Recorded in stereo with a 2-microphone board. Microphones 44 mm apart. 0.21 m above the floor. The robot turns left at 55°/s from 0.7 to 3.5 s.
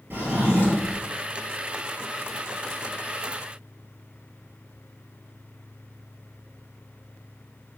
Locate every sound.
0.1 s a drawer: 55° right (ahead or behind), 1.4 m; by 1.0 s 70° right (ahead or behind), 1.4 m